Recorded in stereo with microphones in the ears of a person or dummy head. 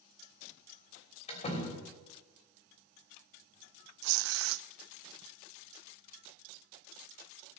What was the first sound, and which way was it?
A door slam, 30° left (ahead or behind).